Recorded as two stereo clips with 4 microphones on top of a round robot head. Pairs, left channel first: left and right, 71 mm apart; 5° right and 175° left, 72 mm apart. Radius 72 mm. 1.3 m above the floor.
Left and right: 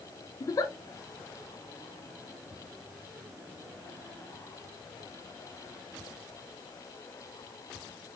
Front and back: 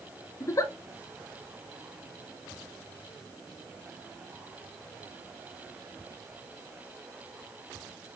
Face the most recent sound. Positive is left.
turn(degrees=40)